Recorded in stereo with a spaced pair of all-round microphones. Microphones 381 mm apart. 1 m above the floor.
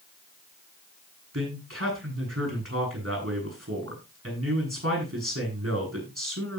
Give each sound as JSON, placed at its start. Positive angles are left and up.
{"t": 1.3, "sound": "a man speaking", "side_deg": -35, "distance_m": 8.0}